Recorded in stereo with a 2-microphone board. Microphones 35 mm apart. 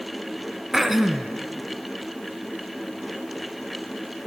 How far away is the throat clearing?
About 1.3 m.